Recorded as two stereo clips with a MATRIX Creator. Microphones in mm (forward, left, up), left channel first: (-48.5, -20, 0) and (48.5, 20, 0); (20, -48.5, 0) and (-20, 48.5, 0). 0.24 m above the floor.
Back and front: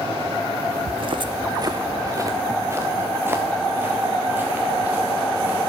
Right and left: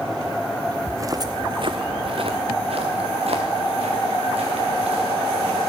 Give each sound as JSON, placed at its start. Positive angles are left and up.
{"t": 0.9, "sound": "footsteps", "azimuth_deg": 45, "distance_m": 0.5}